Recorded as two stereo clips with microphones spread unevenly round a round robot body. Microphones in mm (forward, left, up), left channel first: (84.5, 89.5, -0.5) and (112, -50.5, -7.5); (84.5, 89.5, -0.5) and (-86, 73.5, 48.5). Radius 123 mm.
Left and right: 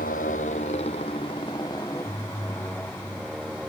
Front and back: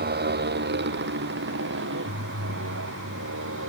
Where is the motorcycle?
160° left; by 3.7 s 165° right.